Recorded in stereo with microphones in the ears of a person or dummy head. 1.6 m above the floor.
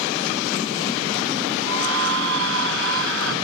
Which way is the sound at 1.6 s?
75° right (ahead or behind).